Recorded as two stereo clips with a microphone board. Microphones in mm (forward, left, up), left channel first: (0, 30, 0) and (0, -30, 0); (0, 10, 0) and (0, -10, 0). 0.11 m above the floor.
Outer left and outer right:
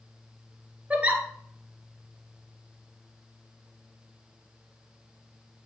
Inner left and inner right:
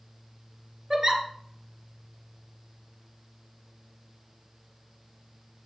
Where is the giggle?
20° right (ahead or behind), 1.4 m.